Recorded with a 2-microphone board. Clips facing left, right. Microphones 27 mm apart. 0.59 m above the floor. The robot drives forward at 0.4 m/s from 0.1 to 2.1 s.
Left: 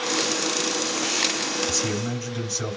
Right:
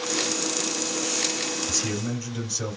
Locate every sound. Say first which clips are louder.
1.7 s a man speaking: left 2 dB; 15° left (ahead or behind), 2.5 m; by 2.8 s 10° left (ahead or behind), 2.5 m